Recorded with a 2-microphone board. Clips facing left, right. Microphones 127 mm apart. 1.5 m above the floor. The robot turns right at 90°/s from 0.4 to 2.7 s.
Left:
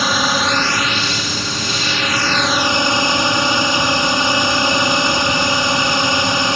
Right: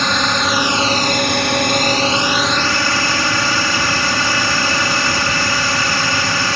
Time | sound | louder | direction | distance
0.0 | a drone | even | 175° left | ?